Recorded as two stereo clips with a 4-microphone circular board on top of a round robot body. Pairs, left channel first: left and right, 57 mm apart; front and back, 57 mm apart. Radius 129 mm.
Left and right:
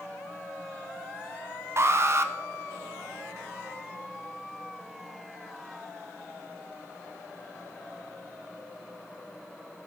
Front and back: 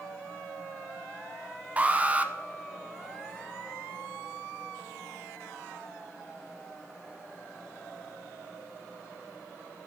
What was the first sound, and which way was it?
An alarm, 120° right.